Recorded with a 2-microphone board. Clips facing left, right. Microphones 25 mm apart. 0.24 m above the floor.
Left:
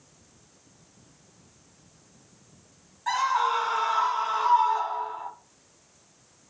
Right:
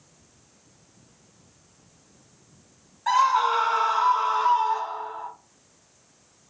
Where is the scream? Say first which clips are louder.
Right 4 dB; 20° right (ahead or behind), 1.6 m; by 5.3 s 5° left (ahead or behind), 2 m.